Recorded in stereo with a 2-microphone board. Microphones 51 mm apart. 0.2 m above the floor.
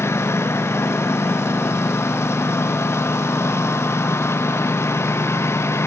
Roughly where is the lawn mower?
Left.